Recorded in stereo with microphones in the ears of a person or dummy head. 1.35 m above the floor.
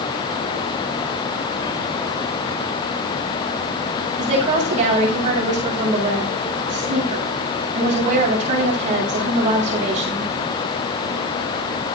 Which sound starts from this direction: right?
A woman speaking, at 4.2 s.